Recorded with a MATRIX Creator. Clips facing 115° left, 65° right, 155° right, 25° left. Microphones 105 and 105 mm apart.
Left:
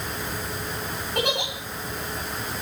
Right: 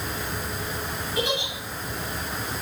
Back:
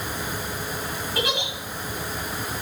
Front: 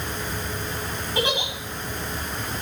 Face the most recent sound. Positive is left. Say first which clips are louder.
# left 1 dB, front 2 dB
turn(degrees=90)